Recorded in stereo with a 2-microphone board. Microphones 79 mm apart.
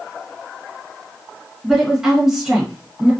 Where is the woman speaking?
5° right (ahead or behind), 1.5 m.